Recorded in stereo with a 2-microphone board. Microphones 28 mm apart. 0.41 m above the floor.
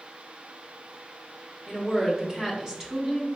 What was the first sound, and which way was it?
A woman speaking, 25° right (ahead or behind).